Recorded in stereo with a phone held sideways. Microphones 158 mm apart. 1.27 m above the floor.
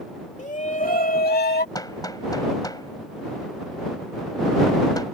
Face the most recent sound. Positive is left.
turn(degrees=25)  # may be behind; listen again after turning